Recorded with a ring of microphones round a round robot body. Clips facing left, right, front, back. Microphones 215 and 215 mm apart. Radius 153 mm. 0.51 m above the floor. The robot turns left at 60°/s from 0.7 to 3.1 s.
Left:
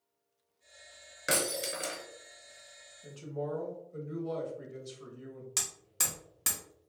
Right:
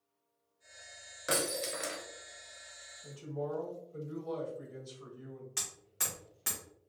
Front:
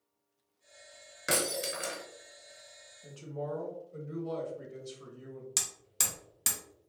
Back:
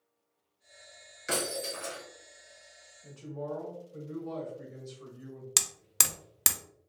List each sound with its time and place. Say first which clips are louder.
1.3 s breaking glass: left 1 dB, front 1 dB; 25° left, 1.2 m; by 2.0 s 20° right, 1.2 m
3.0 s a woman speaking: left 1 dB, even; 40° left, 1.2 m; by 5.5 s 35° left, 1.2 m
5.6 s hammering: left 2 dB, back 4 dB; 150° left, 0.6 m